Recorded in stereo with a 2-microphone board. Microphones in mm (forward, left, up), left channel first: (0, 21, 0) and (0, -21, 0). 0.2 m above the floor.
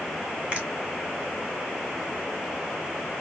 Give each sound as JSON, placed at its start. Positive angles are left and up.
{"t": 0.5, "sound": "a finger snap", "side_deg": -25, "distance_m": 1.7}